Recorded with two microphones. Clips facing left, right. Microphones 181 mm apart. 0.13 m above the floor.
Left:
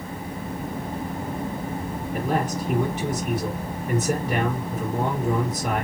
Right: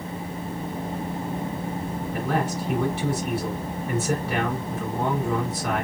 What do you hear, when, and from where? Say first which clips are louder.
2.1 s a man speaking: left 1 dB; 20° left (ahead or behind), 1.9 m